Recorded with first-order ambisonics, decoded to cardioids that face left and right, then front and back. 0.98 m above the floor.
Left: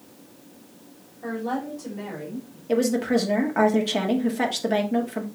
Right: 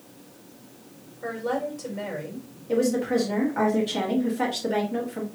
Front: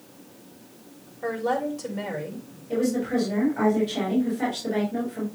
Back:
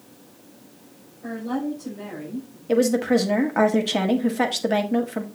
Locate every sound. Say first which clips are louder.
1.2 s a woman speaking: right 1 dB, front 4 dB; 20° right, 4 m
2.7 s a woman speaking: left 1 dB, back 6 dB; 155° left, 1.6 m